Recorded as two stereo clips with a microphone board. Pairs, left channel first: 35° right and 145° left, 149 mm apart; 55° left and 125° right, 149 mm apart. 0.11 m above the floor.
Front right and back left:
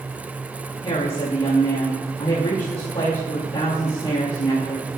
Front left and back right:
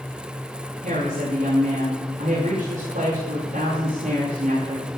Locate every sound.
0.8 s a woman speaking: 85° right, 7 m